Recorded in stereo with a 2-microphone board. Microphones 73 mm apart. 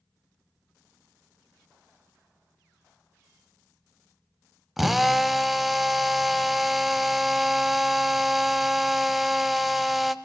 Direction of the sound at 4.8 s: 5° right (ahead or behind).